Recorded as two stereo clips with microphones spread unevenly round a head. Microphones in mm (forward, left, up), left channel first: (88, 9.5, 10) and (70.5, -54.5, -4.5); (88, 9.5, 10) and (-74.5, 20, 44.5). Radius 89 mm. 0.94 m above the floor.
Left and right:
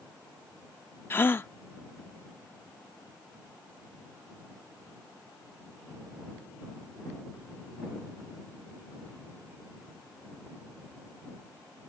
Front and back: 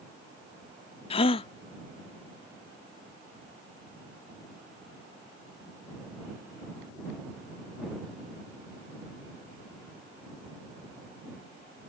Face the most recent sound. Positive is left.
turn(degrees=55)